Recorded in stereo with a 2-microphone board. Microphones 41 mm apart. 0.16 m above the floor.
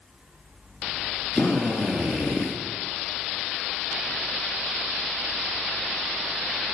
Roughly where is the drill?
Left.